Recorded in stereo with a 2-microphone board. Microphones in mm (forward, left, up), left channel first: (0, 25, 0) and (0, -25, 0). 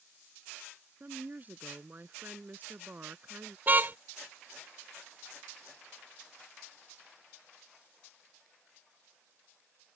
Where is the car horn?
35° right (ahead or behind).